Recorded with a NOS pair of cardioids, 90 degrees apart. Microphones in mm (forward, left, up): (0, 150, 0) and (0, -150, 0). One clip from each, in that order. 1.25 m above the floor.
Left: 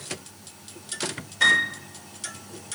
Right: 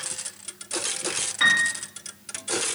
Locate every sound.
1.4 s a piano: 50° right, 2 m